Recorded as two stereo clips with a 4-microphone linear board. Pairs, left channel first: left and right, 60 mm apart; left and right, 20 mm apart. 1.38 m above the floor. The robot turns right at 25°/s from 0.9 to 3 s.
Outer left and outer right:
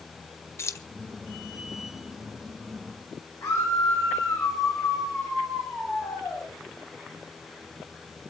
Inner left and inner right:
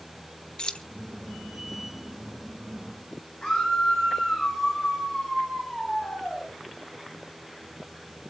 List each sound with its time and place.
0.6 s keys jangling: 50° left (ahead or behind), 0.7 m
3.4 s a scream: 60° left (ahead or behind), 6 m